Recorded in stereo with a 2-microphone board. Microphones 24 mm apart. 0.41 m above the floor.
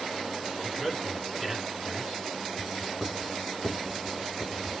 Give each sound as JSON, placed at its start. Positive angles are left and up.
{"t": 0.6, "sound": "a man speaking", "side_deg": 0, "distance_m": 5.0}
{"t": 2.6, "sound": "writing", "side_deg": 5, "distance_m": 3.5}